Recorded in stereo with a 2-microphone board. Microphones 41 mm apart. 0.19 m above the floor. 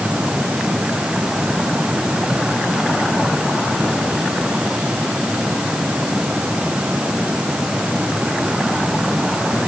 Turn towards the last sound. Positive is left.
No sound to turn to.